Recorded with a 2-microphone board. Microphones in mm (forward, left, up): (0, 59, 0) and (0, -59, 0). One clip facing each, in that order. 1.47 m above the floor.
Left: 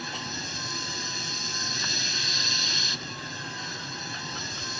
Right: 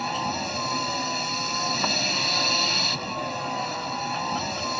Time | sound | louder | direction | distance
0.0 | a vehicle | right 10 dB | 55° right (ahead or behind) | ?